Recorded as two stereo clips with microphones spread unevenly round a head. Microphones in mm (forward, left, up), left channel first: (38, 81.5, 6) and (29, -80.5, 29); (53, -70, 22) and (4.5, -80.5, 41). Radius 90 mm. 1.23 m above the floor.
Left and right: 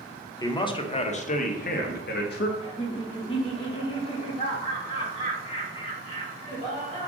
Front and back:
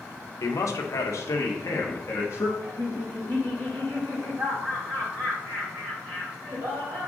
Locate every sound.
0.4 s a man speaking: 15° left, 1.0 m; by 2.5 s 65° left, 1.4 m
2.6 s laughter: 145° left, 2.5 m